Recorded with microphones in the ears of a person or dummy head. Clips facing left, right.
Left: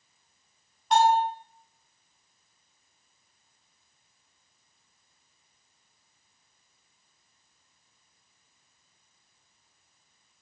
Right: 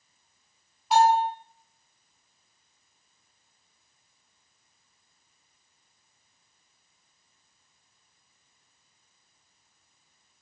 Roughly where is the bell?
Centre.